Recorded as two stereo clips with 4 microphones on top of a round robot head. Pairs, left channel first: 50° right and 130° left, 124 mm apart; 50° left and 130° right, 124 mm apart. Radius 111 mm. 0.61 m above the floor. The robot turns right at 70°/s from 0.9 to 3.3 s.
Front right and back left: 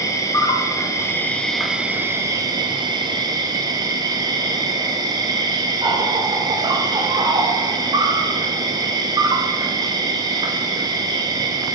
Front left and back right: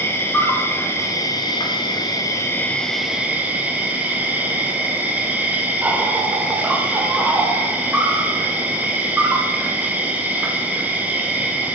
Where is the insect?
10° right, 1.0 m; by 11.8 s 160° left, 1.0 m.